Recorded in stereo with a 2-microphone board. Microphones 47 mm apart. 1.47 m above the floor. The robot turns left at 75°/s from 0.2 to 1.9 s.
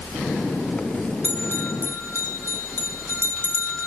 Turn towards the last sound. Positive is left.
turn(degrees=70)  # may be behind; listen again after turning